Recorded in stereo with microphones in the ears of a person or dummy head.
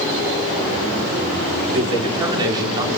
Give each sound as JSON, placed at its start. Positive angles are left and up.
{"t": 1.7, "sound": "a man speaking", "side_deg": -25, "distance_m": 5.5}